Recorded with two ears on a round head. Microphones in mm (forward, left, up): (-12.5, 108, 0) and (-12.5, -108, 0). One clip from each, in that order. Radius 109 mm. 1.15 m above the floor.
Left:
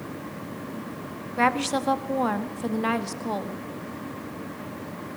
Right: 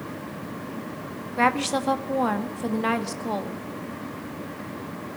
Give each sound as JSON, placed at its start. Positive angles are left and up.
{"t": 1.4, "sound": "a woman speaking", "side_deg": -5, "distance_m": 1.7}